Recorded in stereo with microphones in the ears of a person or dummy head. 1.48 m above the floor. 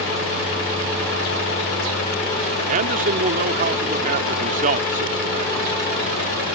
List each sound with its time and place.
2.7 s a man speaking: 45° right (ahead or behind)